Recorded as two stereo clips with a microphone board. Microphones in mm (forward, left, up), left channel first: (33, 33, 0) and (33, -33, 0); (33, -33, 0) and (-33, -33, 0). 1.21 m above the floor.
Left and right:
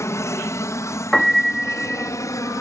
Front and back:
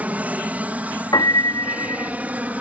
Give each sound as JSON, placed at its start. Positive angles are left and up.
{"t": 0.0, "sound": "an aircraft", "azimuth_deg": 115}
{"t": 1.1, "sound": "a piano", "azimuth_deg": 5}